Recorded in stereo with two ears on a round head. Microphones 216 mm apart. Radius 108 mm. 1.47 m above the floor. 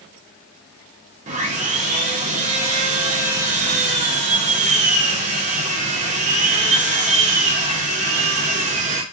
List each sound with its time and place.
1.3 s sawing: 30° right (ahead or behind), 0.8 m